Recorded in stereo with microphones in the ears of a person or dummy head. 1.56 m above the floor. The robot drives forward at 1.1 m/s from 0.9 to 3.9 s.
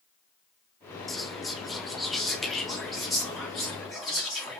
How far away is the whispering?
About 0.5 m.